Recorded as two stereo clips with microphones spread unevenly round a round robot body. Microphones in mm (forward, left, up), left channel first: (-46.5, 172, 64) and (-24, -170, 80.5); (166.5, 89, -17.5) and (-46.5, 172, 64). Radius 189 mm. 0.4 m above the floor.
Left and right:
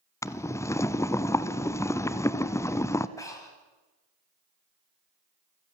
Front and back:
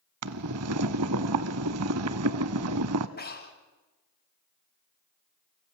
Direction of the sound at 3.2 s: 15° left.